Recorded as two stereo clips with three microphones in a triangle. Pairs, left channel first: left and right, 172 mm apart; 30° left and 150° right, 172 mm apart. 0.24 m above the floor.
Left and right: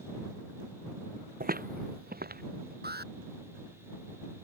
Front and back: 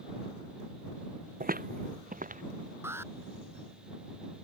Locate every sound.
1.4 s footsteps: 120° right; by 2.7 s 115° right
2.8 s an alarm: 75° right